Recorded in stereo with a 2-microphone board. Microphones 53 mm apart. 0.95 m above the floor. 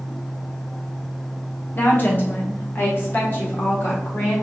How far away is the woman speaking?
About 1.1 m.